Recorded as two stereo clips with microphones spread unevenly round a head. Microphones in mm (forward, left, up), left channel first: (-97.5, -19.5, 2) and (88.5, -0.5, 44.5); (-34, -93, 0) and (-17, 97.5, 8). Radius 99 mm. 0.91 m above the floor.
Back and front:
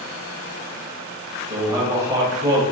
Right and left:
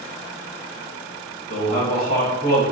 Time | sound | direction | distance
1.5 | a man speaking | 75° right | 1.1 m